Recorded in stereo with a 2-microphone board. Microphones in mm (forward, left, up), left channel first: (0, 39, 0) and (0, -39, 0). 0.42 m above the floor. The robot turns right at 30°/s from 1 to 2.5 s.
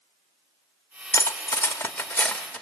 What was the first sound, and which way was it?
Cutlery clinking, 40° left (ahead or behind).